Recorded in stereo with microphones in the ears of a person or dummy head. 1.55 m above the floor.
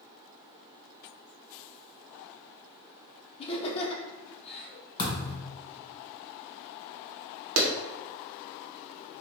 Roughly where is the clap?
Right.